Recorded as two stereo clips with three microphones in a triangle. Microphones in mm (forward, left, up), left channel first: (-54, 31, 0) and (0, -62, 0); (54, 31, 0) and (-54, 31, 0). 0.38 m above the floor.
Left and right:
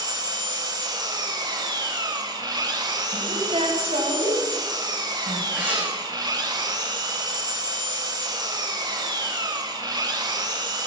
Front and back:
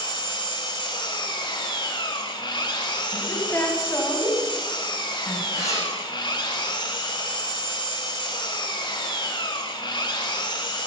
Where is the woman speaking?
65° right, 2.5 m.